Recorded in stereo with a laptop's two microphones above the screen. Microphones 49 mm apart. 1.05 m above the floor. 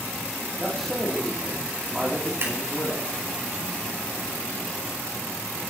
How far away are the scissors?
About 5.5 m.